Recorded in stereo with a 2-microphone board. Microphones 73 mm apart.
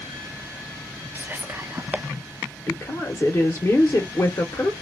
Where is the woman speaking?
35° left (ahead or behind), 0.9 m.